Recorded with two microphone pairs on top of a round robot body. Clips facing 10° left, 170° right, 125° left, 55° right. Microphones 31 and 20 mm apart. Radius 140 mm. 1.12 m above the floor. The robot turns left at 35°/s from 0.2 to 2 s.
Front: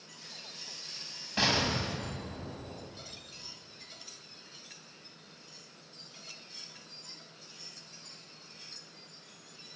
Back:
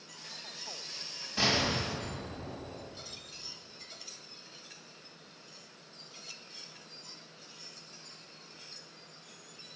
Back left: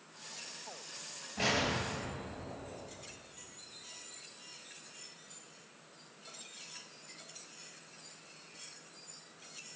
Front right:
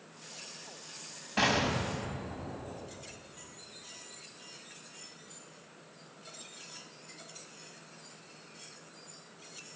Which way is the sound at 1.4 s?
55° right.